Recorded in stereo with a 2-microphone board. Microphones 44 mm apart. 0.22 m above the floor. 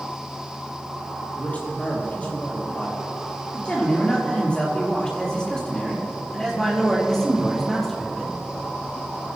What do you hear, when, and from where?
1.4 s a man speaking: 35° left (ahead or behind), 6.5 m; by 8.4 s 5° left (ahead or behind), 7 m